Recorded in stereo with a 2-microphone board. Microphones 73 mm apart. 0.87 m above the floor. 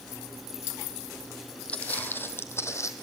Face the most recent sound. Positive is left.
turn(degrees=45)  # may be behind; listen again after turning